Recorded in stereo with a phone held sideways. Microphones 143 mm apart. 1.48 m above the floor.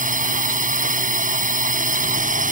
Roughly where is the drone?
Right.